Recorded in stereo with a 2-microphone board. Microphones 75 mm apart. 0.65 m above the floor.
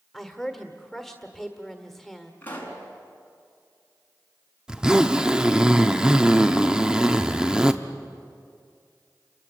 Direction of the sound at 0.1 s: 5° left (ahead or behind).